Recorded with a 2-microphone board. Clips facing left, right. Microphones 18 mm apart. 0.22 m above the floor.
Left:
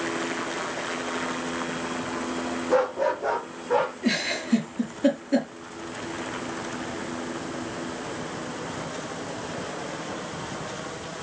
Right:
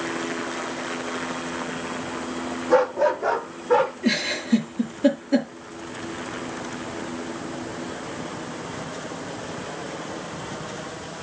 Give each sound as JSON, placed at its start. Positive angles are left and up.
{"t": 2.7, "sound": "a dog barking", "side_deg": -10, "distance_m": 3.0}
{"t": 4.0, "sound": "a giggle", "side_deg": 0, "distance_m": 4.5}